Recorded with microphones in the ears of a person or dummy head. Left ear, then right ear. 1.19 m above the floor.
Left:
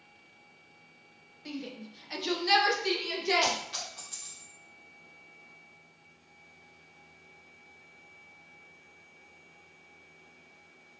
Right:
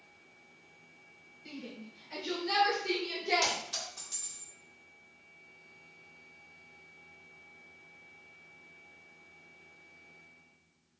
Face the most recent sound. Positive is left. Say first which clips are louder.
# left 2 dB
turn(degrees=0)  # may be behind; listen again after turning